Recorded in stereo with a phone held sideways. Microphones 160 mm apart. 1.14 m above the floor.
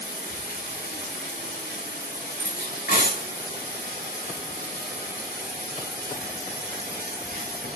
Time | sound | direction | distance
0.0 | running water | 80° left | 2.5 m
2.4 | cutlery clinking | 80° left | 5.5 m